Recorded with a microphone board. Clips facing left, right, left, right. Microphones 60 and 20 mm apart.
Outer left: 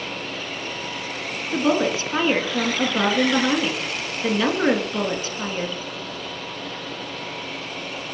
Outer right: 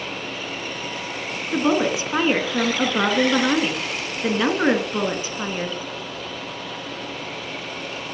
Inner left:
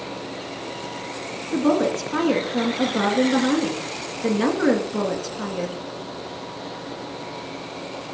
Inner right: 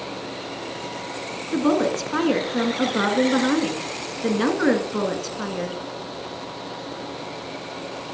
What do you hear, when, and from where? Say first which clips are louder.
1.5 s a woman speaking: outer right 1 dB, even; 15° right (ahead or behind), 1.5 m